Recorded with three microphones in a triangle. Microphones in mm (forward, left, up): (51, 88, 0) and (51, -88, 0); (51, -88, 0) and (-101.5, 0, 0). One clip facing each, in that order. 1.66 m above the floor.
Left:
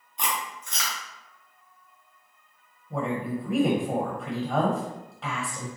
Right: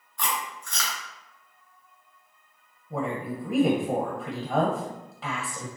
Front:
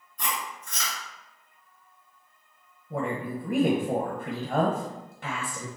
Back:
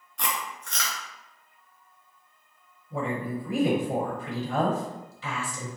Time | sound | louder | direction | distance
0.2 | chewing | even, back 1 dB | 160° left | 1.3 m
2.9 | a woman speaking | left 1 dB, even | 5° right | 1.2 m